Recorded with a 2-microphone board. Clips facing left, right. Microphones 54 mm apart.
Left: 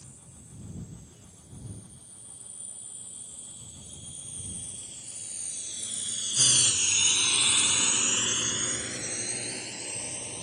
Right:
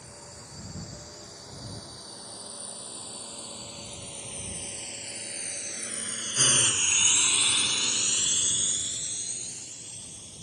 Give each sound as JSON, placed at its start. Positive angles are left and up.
{"t": 0.0, "sound": "a drone", "side_deg": -80}